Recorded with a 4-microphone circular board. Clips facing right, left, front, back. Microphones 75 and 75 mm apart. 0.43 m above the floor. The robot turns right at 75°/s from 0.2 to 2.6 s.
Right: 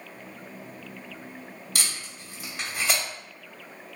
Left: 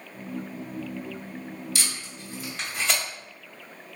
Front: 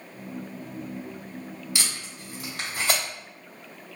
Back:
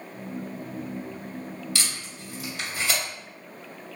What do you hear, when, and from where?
1.8 s tape being pulled: 70° right, 1.7 m; by 3.0 s 10° right, 1.7 m